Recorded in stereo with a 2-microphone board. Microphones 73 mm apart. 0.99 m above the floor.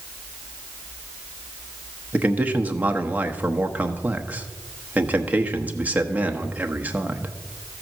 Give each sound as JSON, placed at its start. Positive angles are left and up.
{"t": 2.1, "sound": "a man speaking", "side_deg": -20, "distance_m": 1.0}